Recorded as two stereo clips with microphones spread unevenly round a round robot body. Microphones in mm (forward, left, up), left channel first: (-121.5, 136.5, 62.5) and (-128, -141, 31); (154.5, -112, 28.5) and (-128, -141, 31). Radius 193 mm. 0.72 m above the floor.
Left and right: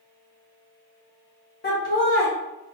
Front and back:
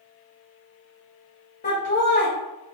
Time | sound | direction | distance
1.6 | laughter | 50° left | 0.6 m